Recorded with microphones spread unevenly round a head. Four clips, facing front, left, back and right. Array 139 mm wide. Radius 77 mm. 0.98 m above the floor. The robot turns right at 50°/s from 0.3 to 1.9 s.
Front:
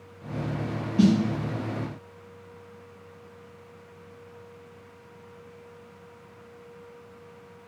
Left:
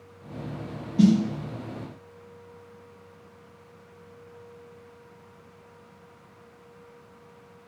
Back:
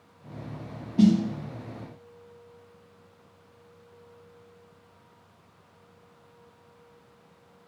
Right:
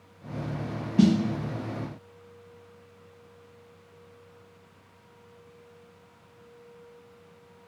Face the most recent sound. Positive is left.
turn(degrees=-80)